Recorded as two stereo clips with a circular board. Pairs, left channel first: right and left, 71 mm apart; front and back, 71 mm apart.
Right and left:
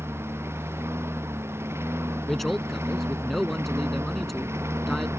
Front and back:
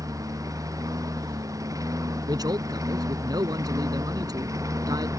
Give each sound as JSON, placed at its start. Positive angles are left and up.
{"t": 0.0, "sound": "a lawn mower", "azimuth_deg": 145}
{"t": 2.3, "sound": "a man speaking", "azimuth_deg": 180}